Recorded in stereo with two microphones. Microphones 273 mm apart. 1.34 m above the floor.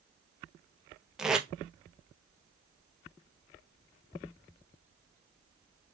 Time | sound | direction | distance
1.2 | tape being pulled | centre (ahead or behind) | 0.6 m